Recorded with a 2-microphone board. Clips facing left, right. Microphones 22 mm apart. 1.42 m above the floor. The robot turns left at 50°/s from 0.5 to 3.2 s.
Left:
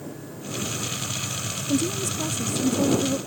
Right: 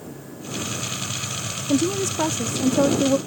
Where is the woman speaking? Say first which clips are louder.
Right 4 dB; 35° right; by 3.2 s 110° right.